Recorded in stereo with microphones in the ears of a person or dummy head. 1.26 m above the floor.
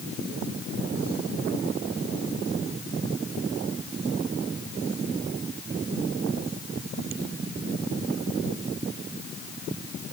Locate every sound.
Only background noise.